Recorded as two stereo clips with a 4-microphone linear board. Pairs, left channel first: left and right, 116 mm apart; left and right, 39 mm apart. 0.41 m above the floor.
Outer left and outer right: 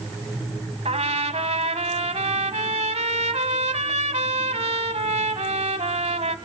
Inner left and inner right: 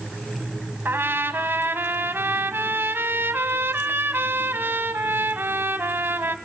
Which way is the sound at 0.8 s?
75° right (ahead or behind).